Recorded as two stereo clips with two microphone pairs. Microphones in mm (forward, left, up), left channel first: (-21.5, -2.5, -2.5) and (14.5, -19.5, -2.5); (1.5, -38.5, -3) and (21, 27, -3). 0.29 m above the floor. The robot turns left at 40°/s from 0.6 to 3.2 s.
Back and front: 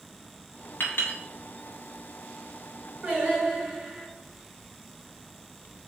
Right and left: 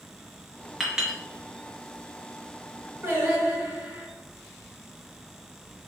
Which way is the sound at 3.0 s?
35° left.